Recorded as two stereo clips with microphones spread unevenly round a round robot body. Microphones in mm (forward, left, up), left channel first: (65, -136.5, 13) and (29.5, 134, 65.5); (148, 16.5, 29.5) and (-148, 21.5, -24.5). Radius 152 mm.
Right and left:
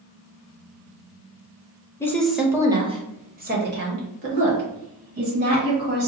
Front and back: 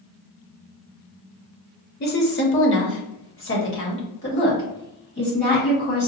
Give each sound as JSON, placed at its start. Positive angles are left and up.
{"t": 2.0, "sound": "a woman speaking", "azimuth_deg": -40, "distance_m": 0.9}